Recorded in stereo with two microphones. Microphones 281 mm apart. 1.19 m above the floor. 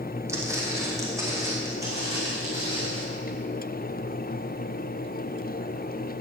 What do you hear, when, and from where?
0.3 s footsteps: 10° right (ahead or behind), 3 m